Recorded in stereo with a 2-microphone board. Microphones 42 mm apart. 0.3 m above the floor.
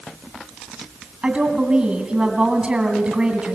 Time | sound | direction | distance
1.2 | a woman speaking | 25° right (ahead or behind) | 2 m